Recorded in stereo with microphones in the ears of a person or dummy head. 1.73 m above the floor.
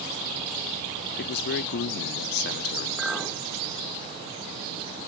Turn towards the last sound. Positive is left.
turn(degrees=0)  # may be behind; listen again after turning